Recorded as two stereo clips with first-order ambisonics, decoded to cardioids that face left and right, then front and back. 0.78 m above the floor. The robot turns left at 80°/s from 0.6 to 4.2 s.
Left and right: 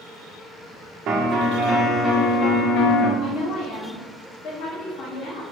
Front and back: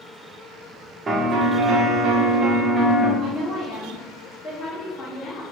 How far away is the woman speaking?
About 1.1 m.